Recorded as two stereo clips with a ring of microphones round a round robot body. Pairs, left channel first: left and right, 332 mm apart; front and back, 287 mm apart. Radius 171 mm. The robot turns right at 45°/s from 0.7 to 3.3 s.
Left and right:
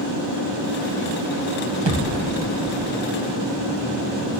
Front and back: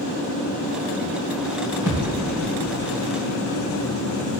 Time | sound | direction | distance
1.9 | a thud | 115° right | 2.5 m